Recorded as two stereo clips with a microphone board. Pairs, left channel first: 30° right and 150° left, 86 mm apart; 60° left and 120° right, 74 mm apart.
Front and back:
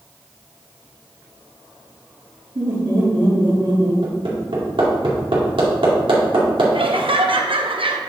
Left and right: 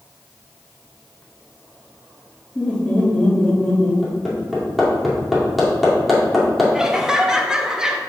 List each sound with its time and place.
2.5 s laughter: 135° left, 3 m
4.0 s hammering: 150° left, 2 m
6.7 s laughter: 160° left, 0.9 m